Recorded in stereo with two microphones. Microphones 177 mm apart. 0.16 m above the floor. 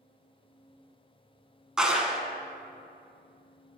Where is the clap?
5° right (ahead or behind), 1.0 m.